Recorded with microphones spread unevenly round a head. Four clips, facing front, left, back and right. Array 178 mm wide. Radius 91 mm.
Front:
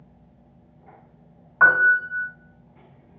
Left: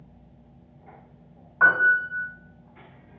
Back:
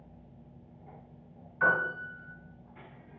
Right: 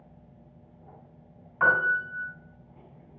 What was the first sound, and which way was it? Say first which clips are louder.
A piano: left 4 dB, front 11 dB; straight ahead.